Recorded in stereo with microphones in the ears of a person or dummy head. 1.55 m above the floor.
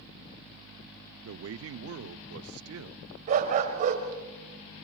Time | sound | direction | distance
1.2 | a man speaking | 70° right (ahead or behind) | 0.6 m
3.3 | a dog barking | 45° right (ahead or behind) | 3 m